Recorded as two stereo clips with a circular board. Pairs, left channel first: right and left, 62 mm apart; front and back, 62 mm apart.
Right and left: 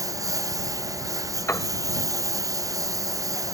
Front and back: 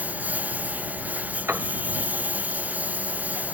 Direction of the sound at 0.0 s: 115° left.